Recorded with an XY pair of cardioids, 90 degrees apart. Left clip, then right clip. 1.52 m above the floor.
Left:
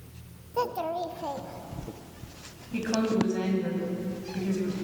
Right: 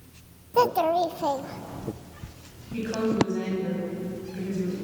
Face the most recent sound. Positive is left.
turn(degrees=40)